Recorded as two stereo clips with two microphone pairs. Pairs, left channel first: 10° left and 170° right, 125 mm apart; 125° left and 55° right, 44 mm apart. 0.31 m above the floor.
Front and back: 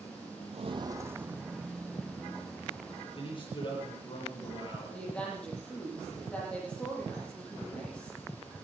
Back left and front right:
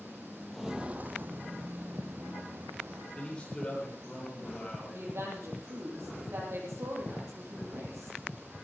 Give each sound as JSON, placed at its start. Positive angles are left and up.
{"t": 0.5, "sound": "footsteps", "azimuth_deg": -150, "distance_m": 0.6}
{"t": 3.1, "sound": "a man speaking", "azimuth_deg": 60, "distance_m": 8.5}
{"t": 4.9, "sound": "a woman speaking", "azimuth_deg": -70, "distance_m": 8.5}